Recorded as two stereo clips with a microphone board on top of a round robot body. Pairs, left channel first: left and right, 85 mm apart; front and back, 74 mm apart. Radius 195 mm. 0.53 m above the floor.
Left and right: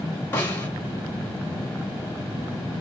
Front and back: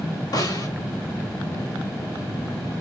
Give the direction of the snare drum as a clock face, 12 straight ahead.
11 o'clock.